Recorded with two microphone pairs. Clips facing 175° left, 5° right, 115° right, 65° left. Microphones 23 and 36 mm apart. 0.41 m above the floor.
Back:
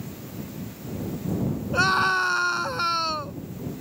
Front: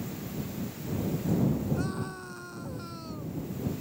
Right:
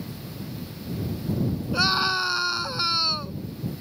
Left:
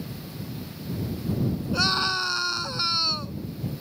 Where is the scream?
165° left.